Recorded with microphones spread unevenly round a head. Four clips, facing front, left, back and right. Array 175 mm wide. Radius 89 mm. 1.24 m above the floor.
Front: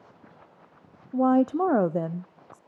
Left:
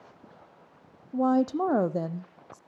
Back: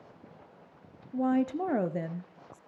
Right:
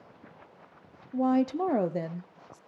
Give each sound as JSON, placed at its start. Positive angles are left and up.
{"t": 1.1, "sound": "a woman speaking", "azimuth_deg": 10, "distance_m": 0.6}